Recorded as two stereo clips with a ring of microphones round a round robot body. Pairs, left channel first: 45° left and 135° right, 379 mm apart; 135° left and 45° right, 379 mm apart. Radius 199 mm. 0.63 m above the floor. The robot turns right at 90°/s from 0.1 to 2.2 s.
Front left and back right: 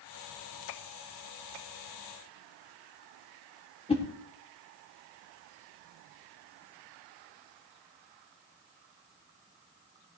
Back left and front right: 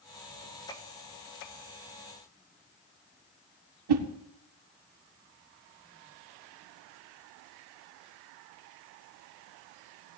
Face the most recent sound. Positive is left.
turn(degrees=-30)